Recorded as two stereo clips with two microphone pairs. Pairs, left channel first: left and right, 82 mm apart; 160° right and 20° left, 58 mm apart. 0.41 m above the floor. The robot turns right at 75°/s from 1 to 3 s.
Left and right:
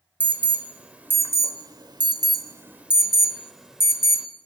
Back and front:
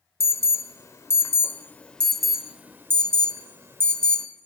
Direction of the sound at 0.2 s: 160° right.